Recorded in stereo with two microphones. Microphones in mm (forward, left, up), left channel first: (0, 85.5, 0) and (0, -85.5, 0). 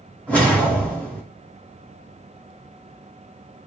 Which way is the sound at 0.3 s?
10° left (ahead or behind).